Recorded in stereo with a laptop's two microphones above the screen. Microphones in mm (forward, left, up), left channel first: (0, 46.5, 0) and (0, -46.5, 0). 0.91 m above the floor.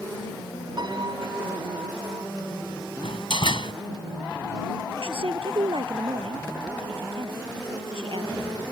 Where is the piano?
50° right (ahead or behind).